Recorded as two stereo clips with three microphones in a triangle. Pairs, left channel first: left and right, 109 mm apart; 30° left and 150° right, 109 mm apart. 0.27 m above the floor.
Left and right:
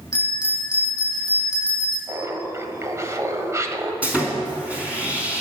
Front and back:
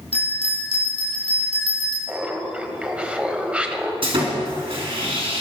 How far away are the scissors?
No scissors in this recording.